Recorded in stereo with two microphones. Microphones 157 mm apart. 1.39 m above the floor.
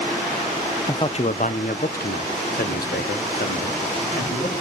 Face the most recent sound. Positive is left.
turn(degrees=75)  # may be behind; listen again after turning